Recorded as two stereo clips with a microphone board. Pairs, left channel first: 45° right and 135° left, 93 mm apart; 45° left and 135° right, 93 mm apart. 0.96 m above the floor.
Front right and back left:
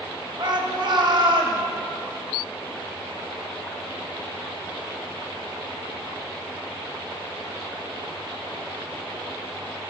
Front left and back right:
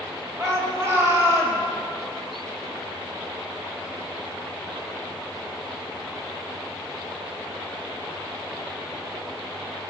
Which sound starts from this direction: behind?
A shout, at 0.4 s.